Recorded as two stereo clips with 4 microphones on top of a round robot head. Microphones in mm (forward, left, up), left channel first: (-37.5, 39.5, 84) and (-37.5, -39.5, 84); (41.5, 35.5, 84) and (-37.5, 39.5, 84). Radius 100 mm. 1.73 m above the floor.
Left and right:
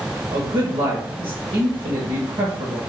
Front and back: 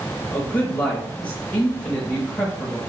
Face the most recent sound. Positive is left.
turn(degrees=-65)